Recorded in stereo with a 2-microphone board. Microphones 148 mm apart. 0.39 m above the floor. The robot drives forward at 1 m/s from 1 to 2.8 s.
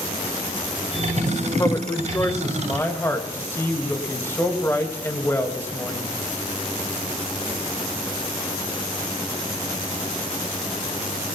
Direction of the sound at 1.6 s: 25° left (ahead or behind).